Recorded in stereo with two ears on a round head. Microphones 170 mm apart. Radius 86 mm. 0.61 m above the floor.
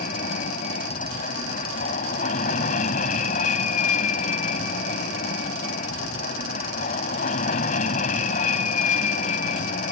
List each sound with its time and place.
0.0 s an aircraft: 40° left (ahead or behind)